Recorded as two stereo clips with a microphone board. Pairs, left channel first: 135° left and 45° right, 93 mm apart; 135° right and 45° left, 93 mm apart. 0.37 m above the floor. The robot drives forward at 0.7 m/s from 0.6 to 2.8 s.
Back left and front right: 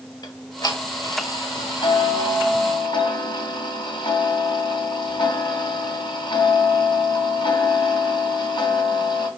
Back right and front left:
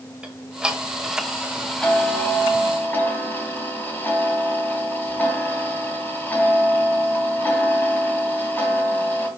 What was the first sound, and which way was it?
Ticking, 120° left.